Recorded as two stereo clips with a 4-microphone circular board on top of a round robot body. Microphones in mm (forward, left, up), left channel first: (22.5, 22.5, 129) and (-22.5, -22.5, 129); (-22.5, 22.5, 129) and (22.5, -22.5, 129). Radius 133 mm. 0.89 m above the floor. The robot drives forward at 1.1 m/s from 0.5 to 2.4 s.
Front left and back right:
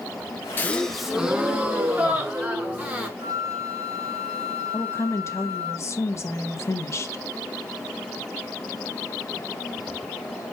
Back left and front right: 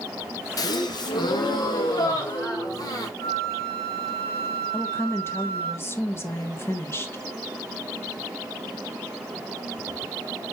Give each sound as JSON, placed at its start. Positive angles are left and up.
{"t": 0.6, "sound": "a gasp", "azimuth_deg": 105, "distance_m": 0.7}
{"t": 3.2, "sound": "a flute", "azimuth_deg": -150, "distance_m": 5.5}
{"t": 4.7, "sound": "a woman speaking", "azimuth_deg": 85, "distance_m": 1.8}